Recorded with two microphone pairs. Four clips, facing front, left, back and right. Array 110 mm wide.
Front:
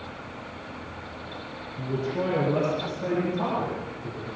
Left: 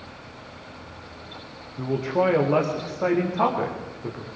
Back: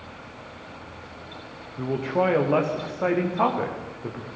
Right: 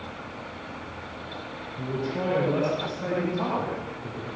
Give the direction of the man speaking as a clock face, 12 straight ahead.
7 o'clock.